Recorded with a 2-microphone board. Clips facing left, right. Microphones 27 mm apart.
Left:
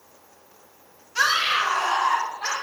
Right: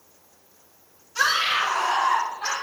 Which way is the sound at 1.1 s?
30° left (ahead or behind).